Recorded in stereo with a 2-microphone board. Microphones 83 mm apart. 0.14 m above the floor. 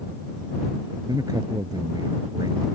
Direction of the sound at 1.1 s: 50° right (ahead or behind).